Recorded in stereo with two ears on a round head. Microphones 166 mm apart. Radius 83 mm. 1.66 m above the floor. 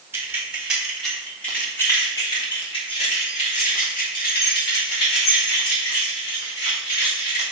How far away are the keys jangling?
About 2.5 m.